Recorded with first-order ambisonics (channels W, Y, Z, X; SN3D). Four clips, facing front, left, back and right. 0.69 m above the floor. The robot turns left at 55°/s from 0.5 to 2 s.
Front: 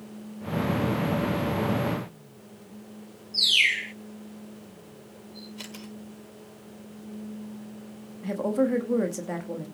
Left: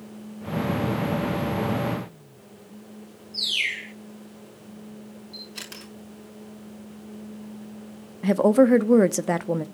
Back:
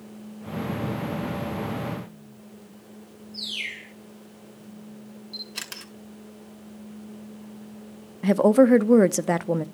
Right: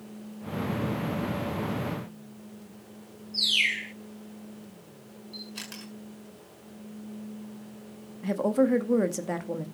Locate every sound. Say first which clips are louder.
3.3 s a bird: right 1 dB, front 11 dB; 5° right, 0.7 m
5.3 s a camera shutter: left 1 dB, back 6 dB; 175° left, 6.5 m
8.2 s a woman speaking: left 7 dB, back 9 dB; 145° left, 0.7 m